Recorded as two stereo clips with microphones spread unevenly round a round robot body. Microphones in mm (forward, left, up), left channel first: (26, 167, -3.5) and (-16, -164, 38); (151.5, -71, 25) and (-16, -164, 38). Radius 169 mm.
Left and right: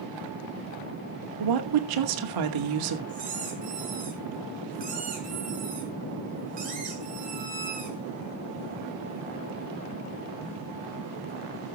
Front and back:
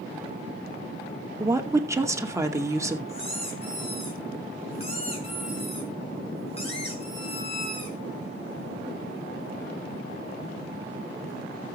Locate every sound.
1.4 s a woman speaking: 75° right, 2.5 m
3.1 s a squeak: 30° right, 7.5 m